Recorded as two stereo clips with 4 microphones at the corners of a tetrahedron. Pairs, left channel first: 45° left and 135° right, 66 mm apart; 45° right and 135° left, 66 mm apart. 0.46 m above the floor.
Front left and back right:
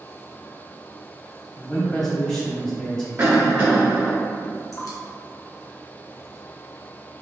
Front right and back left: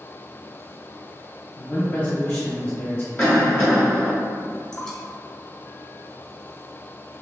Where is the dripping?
30° left, 0.7 m.